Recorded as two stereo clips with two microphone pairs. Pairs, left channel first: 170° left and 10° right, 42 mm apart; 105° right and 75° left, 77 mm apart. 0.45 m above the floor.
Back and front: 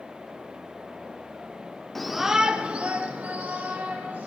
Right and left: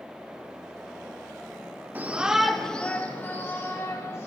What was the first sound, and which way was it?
A shout, 85° left.